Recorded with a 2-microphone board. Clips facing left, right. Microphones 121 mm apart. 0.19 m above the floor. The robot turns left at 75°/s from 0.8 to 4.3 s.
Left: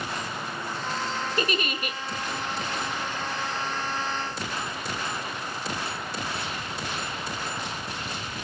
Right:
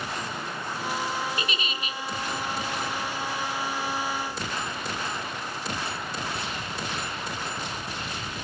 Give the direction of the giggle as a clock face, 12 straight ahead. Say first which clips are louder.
Left 5 dB; 8 o'clock.